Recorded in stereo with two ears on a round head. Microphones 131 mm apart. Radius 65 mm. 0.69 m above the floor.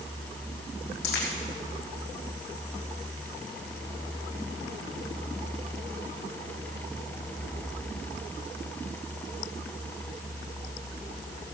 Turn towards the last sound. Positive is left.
turn(degrees=85)